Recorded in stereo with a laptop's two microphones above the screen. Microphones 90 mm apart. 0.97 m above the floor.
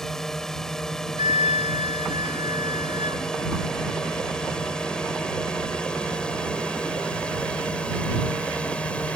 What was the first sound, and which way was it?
A drone, 5° left (ahead or behind).